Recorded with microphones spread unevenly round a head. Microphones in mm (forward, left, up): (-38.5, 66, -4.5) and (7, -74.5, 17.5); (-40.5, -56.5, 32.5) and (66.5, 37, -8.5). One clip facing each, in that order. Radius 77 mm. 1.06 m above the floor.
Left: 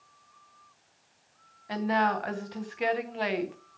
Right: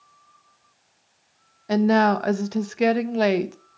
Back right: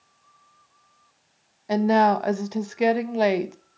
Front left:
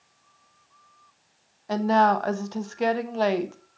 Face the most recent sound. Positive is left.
turn(degrees=-55)